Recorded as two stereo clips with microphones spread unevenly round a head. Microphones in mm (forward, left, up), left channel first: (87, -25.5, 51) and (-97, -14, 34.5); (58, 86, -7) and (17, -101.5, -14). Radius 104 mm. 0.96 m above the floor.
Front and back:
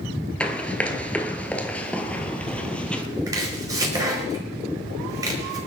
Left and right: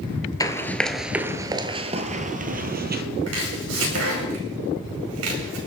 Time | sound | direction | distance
0.4 | running footsteps | 60° left | 0.9 m
3.3 | chopping | 110° right | 5 m